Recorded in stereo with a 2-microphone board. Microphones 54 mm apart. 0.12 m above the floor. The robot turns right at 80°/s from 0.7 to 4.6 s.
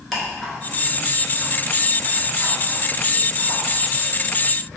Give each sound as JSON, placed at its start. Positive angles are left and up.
{"t": 0.1, "sound": "ticking", "side_deg": 0, "distance_m": 1.5}